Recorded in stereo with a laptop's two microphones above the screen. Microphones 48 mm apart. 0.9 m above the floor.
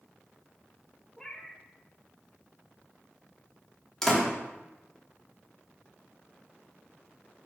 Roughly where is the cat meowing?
Centre.